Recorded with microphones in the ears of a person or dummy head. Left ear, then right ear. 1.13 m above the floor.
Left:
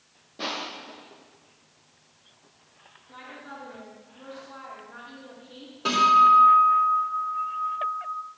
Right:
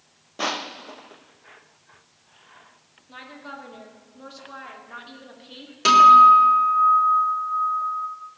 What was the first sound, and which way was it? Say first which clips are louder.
Crushing: right 4 dB; 45° right (ahead or behind).